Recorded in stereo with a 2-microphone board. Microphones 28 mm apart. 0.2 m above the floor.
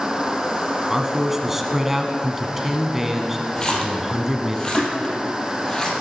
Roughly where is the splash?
Left.